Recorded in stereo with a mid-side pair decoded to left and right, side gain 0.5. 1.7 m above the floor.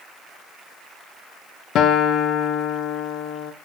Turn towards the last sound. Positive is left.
turn(degrees=65)